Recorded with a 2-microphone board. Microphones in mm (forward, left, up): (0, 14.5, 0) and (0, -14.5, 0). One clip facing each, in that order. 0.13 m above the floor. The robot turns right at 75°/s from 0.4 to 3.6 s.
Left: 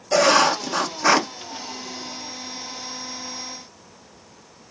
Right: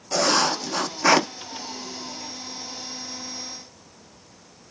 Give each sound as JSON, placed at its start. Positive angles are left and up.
{"t": 0.1, "sound": "writing", "azimuth_deg": 135, "distance_m": 1.1}